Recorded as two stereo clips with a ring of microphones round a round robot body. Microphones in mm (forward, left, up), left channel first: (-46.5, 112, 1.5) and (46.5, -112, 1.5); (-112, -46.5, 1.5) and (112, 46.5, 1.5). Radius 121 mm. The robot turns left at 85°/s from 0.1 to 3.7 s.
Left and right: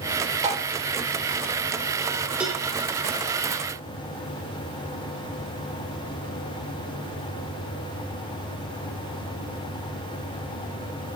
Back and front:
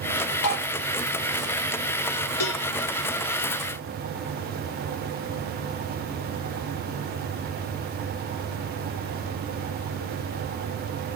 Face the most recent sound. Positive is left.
turn(degrees=95)